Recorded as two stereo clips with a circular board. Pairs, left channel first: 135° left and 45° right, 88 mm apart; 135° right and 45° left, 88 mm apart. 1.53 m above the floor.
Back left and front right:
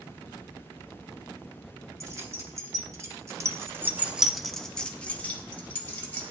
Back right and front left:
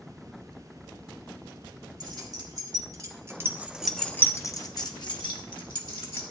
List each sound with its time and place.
2.0 s keys jangling: 10° left, 2 m; by 6.2 s 160° right, 2.5 m